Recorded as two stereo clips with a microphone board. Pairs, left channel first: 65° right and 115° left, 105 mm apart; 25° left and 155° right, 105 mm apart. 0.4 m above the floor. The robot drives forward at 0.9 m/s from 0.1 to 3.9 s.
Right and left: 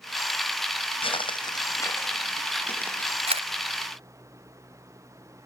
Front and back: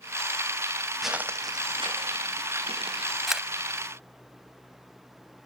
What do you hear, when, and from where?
1.0 s footsteps: 65° right, 0.7 m; by 3.2 s 145° right, 3 m
3.3 s a camera shutter: 115° left, 0.9 m; by 3.5 s 125° left, 1.0 m